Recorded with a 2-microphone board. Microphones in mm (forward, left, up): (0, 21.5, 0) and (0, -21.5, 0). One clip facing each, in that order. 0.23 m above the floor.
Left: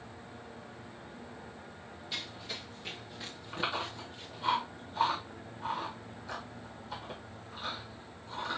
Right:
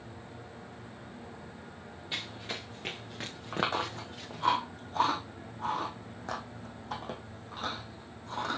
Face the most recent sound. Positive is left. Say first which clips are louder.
# right 4 dB
turn(degrees=-55)  # may be behind; listen again after turning